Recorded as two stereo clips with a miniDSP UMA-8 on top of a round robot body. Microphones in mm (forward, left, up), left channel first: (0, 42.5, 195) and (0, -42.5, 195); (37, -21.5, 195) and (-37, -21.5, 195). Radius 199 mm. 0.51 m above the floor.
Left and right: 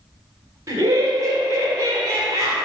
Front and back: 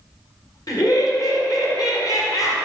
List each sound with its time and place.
0.7 s laughter: 40° right, 2.0 m